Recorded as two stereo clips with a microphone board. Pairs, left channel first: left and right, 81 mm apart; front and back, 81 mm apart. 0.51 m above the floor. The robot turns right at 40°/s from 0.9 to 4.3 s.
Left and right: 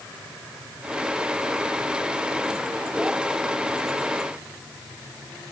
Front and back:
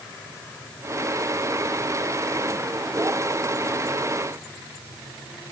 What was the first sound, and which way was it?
Only background noise.